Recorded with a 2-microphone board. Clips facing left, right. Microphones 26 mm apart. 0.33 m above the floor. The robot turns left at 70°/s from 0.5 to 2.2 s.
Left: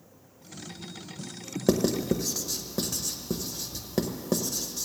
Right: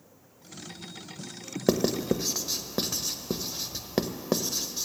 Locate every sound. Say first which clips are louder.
1.7 s writing: even; 15° right (ahead or behind), 0.6 m; by 4.9 s 35° right (ahead or behind), 0.6 m